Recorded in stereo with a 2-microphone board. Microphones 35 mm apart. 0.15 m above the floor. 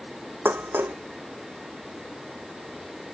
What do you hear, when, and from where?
0.5 s dishes clattering: 80° right